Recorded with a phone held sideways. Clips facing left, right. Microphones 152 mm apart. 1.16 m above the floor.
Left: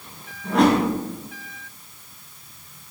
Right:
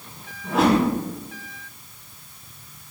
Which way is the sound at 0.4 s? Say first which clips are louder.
Left 1 dB; 5° right (ahead or behind).